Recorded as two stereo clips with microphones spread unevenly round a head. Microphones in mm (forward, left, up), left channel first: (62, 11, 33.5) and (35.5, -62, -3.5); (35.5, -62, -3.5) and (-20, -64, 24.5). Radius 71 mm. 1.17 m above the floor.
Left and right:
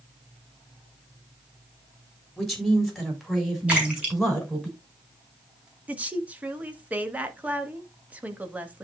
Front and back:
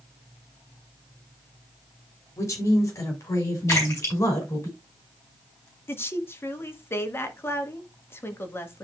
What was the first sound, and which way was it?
A woman speaking, 20° right.